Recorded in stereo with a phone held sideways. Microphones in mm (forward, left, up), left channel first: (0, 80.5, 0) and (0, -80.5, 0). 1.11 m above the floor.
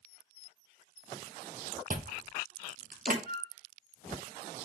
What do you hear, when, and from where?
1.9 s chewing: 55° right (ahead or behind), 0.8 m
3.3 s a flute: 65° right (ahead or behind), 1.9 m